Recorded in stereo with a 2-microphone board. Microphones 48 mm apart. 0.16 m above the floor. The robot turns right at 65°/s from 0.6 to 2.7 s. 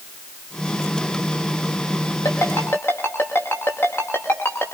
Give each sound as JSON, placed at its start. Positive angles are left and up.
{"t": 2.2, "sound": "a ringtone", "side_deg": 85, "distance_m": 9.5}